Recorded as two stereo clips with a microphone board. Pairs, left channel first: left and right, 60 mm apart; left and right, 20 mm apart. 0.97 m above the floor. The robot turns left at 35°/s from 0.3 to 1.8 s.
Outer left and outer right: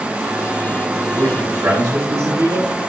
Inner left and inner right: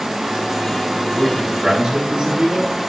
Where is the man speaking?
75° right (ahead or behind), 5 m; by 2.7 s 55° right (ahead or behind), 5 m.